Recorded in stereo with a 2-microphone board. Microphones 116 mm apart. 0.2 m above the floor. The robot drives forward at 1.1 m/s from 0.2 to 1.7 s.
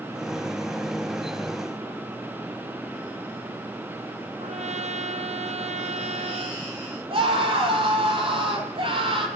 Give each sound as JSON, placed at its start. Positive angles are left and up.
{"t": 4.4, "sound": "a trumpet", "side_deg": -75, "distance_m": 1.9}
{"t": 7.1, "sound": "a scream", "side_deg": -50, "distance_m": 5.5}